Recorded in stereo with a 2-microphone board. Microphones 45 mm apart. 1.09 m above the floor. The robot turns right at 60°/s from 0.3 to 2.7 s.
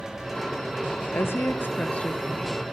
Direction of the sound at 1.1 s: 95° left.